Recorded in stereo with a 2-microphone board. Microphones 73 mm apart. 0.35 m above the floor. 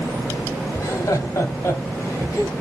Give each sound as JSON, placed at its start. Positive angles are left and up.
{"t": 0.8, "sound": "laughter", "side_deg": 45, "distance_m": 1.0}